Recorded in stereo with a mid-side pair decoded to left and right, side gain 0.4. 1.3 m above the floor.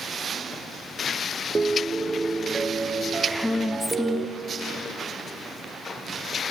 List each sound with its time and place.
1.6 s a piano: 30° right, 0.7 m
3.3 s a woman speaking: 10° left, 0.7 m